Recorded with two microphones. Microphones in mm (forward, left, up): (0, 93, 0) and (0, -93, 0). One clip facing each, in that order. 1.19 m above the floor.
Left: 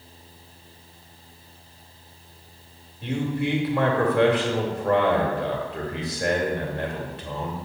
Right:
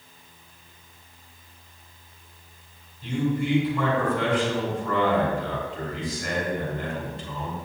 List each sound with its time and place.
3.0 s a man speaking: 80° left, 2.5 m